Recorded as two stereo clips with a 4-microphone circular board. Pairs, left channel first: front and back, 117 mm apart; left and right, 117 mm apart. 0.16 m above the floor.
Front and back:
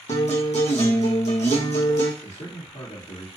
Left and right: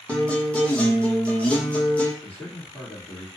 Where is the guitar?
10° left, 1.0 m.